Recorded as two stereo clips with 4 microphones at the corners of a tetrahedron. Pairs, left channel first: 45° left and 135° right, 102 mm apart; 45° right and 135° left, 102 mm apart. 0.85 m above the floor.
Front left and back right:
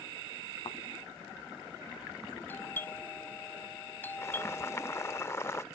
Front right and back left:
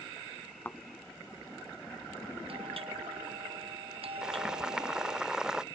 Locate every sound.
0.7 s a thud: 25° left
2.5 s a doorbell: 115° left
4.2 s boiling: 60° left